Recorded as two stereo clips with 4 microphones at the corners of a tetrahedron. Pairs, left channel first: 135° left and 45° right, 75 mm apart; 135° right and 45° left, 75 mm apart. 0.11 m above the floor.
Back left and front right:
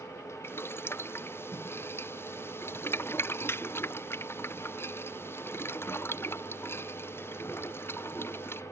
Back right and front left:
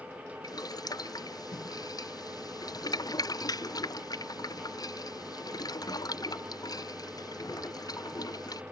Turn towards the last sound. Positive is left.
turn(degrees=-170)